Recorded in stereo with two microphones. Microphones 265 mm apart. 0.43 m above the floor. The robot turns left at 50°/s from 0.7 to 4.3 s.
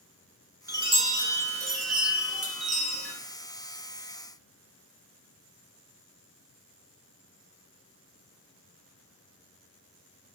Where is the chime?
10° right, 1.5 m; by 3.1 s 130° right, 1.5 m.